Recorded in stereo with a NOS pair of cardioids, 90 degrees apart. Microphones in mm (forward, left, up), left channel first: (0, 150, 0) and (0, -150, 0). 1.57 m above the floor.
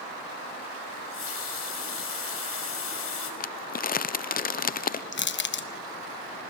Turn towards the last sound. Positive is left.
turn(degrees=40)